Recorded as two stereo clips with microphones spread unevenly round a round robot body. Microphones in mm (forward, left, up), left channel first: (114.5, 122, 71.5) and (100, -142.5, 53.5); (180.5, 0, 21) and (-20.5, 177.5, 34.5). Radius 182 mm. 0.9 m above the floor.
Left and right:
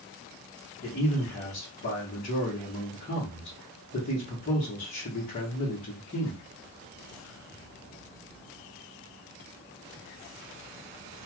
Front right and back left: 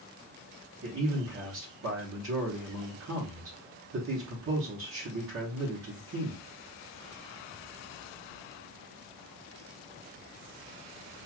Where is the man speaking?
140° left, 1.1 m.